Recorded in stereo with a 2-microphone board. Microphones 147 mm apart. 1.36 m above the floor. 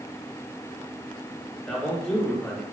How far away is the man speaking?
About 2 m.